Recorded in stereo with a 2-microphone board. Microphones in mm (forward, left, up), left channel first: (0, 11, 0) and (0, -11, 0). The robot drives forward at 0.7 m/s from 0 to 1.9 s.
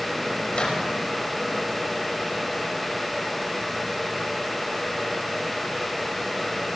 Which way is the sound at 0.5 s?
50° left (ahead or behind).